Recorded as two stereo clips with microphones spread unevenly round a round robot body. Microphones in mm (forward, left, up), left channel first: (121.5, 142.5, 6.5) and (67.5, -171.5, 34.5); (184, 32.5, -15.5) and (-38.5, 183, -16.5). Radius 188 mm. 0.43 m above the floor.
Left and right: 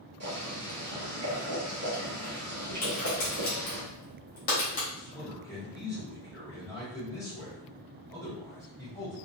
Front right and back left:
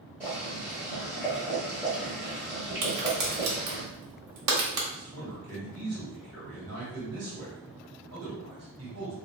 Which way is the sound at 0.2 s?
135° right.